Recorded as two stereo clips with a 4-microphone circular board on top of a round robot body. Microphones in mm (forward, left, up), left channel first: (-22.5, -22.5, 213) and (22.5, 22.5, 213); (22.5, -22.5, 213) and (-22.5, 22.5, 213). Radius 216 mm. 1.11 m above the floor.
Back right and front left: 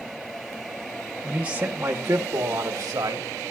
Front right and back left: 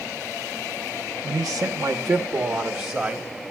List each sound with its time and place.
1.2 s a man speaking: 120° left, 0.8 m; by 3.3 s 75° left, 1.4 m